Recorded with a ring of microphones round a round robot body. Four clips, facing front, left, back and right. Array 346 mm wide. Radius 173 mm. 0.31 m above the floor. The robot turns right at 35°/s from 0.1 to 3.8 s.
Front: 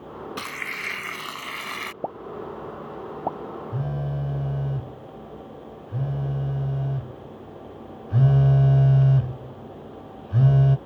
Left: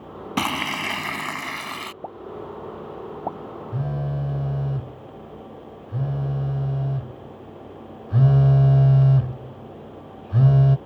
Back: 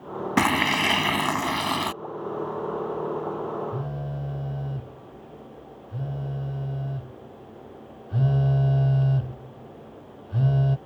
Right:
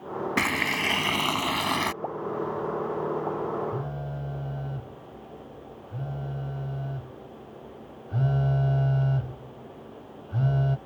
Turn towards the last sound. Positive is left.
turn(degrees=70)